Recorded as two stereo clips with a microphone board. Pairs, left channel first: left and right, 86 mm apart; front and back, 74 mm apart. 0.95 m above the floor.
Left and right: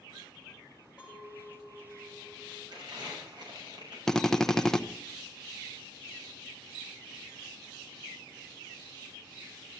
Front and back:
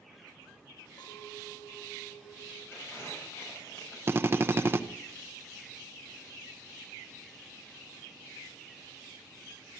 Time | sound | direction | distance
1.0 | a clink | 10° right | 4 m
2.7 | crumpling | 55° right | 6.5 m
4.1 | a drill | 170° left | 0.7 m